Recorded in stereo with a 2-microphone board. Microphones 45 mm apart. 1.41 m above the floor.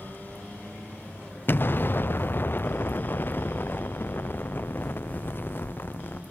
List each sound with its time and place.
1.5 s an explosion: 45° left (ahead or behind)